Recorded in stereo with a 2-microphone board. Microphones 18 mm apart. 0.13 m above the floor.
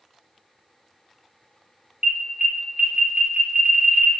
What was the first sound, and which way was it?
An alarm, 55° right (ahead or behind).